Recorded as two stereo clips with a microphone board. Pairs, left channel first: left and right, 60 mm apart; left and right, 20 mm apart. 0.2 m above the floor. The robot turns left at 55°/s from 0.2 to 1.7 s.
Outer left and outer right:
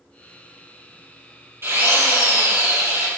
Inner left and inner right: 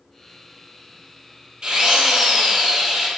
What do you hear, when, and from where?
1.6 s a drill: 40° right (ahead or behind), 4.5 m; by 3.1 s 45° right (ahead or behind), 4.5 m